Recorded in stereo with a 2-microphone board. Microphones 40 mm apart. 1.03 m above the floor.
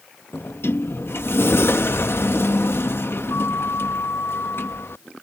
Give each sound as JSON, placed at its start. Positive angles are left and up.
{"t": 0.3, "sound": "a sliding door", "side_deg": 70}